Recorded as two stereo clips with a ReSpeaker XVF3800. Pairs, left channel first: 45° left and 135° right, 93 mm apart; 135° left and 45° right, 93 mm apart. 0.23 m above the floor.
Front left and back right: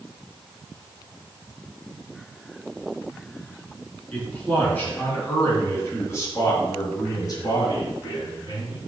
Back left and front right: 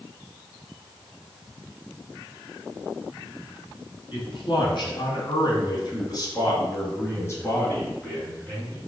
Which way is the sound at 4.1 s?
120° left.